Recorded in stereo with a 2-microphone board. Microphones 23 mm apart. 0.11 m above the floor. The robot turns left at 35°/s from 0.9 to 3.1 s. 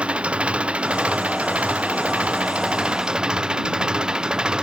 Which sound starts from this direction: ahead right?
An engine running, at 0.0 s.